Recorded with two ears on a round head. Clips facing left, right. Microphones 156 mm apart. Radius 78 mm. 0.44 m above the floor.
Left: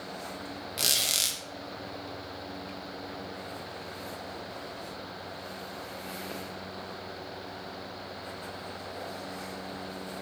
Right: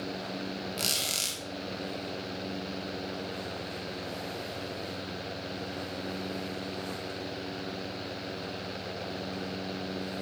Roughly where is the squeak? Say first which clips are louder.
Right 1 dB; centre.